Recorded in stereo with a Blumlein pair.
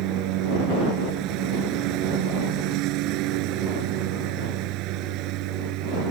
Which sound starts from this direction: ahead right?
A lawn mower, at 0.0 s.